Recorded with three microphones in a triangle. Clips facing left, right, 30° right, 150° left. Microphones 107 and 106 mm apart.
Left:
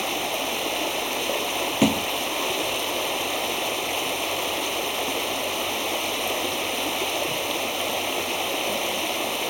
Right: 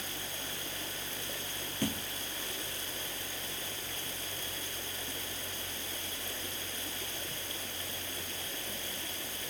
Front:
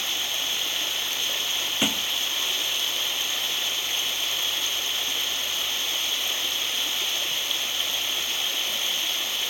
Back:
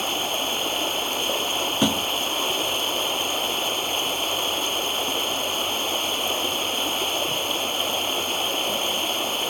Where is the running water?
105° left.